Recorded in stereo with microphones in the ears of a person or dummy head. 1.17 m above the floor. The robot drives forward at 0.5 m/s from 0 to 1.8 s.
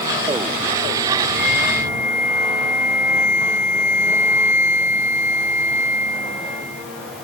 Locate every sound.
1.4 s a flute: 75° left (ahead or behind)